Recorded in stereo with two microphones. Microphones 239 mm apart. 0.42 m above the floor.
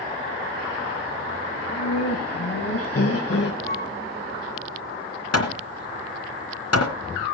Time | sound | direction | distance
1.5 | laughter | 75° left (ahead or behind) | 3.5 m
3.6 | a flute | 10° left (ahead or behind) | 9 m
5.3 | hammering | 80° left | 2.5 m